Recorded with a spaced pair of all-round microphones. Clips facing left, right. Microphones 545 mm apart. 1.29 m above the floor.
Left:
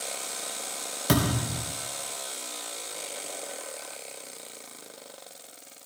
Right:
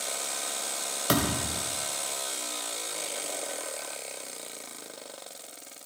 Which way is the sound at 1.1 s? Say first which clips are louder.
Left 2 dB; 45° left (ahead or behind).